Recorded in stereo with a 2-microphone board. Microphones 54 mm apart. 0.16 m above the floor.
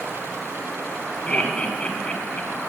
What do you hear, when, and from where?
1.3 s laughter: 20° left (ahead or behind), 1.2 m